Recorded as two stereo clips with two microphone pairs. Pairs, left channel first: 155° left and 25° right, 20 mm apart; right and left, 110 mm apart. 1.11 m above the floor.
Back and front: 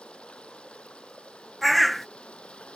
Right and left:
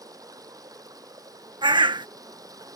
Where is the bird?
70° left.